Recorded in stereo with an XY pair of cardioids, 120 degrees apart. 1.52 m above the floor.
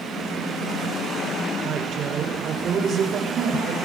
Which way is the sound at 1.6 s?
45° right.